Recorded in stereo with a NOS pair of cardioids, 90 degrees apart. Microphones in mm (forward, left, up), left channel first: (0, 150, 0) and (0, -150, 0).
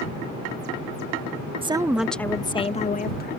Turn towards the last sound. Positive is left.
turn(degrees=35)